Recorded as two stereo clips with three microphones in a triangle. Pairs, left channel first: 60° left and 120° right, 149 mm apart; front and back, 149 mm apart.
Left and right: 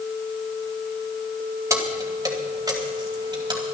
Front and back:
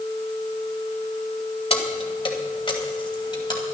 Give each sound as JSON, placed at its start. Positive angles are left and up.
{"t": 1.7, "sound": "keys jangling", "azimuth_deg": -50, "distance_m": 1.8}